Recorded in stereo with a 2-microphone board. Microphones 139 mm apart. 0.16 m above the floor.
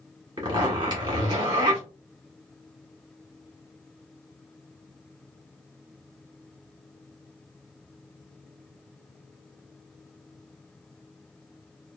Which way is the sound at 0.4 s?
30° right (ahead or behind).